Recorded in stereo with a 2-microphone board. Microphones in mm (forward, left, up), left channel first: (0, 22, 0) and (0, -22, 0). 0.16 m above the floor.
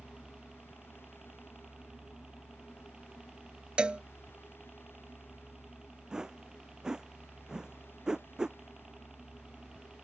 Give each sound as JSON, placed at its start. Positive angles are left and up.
{"t": 0.0, "sound": "a helicopter", "side_deg": -15}
{"t": 3.8, "sound": "a cowbell", "side_deg": -25}
{"t": 6.1, "sound": "a whoosh", "side_deg": -15}